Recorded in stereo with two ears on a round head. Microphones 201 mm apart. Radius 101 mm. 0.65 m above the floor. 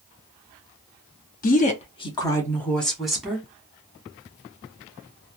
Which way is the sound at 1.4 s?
40° left (ahead or behind).